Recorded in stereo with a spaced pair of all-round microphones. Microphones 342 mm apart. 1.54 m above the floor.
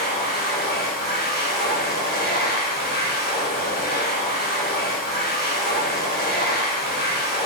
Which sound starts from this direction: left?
A machine running, at 0.0 s.